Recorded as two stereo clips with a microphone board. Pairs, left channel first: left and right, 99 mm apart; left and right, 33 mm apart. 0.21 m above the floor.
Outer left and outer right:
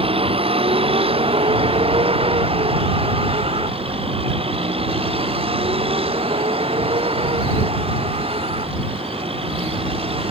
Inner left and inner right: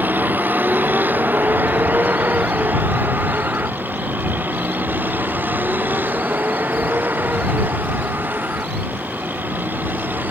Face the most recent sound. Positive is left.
turn(degrees=-90)